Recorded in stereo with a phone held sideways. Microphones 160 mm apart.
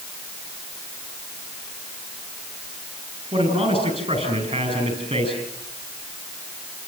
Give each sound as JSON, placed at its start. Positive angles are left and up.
{"t": 3.3, "sound": "a man speaking", "side_deg": -35, "distance_m": 9.0}